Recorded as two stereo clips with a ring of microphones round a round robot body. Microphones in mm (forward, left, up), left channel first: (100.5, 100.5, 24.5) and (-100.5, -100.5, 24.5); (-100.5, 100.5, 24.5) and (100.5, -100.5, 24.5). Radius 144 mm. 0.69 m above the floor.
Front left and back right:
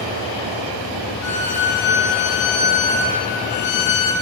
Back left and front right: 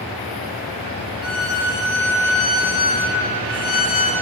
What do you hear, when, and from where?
1.2 s a violin: 85° left, 0.7 m